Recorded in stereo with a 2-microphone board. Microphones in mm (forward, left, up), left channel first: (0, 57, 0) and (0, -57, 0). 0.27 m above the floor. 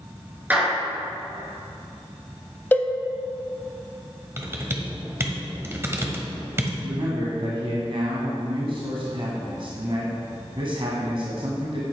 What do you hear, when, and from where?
0.5 s a clap: 15° right (ahead or behind), 3.5 m
2.7 s a cowbell: 20° left (ahead or behind), 0.7 m
4.4 s typing on a keyboard: 25° right (ahead or behind), 1.3 m
6.8 s a man speaking: 55° right (ahead or behind), 2 m